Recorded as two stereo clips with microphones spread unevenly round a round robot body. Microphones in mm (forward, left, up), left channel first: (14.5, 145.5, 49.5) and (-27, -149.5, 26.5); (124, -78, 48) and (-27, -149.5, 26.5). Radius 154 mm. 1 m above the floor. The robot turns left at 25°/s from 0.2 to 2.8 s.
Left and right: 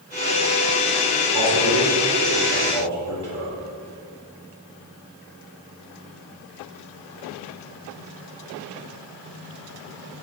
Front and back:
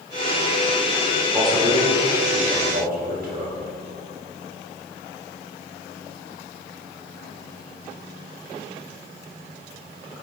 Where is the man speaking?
90° right, 4 m; by 3.5 s 125° right, 4 m.